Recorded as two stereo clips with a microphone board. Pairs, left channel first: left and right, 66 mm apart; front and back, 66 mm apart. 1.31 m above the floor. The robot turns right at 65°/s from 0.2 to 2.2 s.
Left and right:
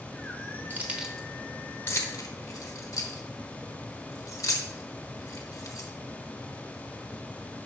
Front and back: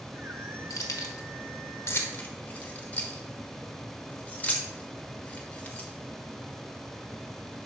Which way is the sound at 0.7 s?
35° right.